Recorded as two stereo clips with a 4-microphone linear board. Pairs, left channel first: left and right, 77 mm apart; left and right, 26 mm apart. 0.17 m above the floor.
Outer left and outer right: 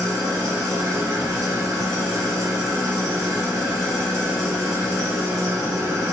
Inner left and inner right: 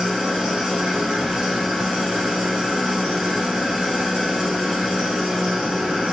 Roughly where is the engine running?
Right.